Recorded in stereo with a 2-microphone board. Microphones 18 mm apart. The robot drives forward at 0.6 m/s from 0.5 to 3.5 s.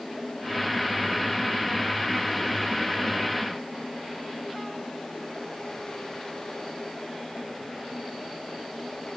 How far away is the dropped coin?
No dropped coin in this recording.